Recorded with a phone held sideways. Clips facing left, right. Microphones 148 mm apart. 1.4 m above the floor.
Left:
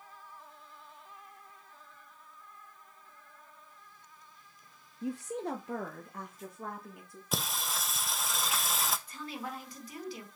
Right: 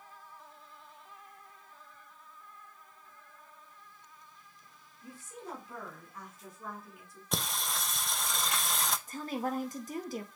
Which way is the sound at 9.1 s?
45° right (ahead or behind).